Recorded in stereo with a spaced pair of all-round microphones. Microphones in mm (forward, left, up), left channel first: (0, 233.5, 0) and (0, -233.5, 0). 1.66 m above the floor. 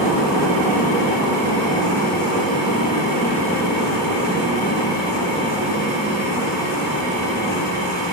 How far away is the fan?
About 1.6 m.